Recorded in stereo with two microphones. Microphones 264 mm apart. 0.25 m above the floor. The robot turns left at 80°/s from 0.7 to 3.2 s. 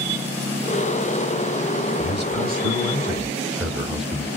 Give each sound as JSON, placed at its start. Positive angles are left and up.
{"t": 2.0, "sound": "a man speaking", "azimuth_deg": -80, "distance_m": 1.3}